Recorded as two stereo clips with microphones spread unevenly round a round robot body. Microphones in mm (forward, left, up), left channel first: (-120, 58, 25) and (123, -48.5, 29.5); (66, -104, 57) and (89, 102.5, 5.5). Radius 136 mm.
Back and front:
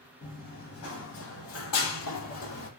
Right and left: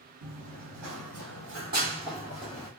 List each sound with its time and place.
0.2 s running footsteps: 100° left, 1.9 m; by 2.7 s 165° right, 1.2 m